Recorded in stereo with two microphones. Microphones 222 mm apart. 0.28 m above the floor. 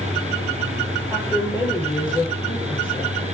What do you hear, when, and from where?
1.1 s a woman speaking: 20° left (ahead or behind), 8.5 m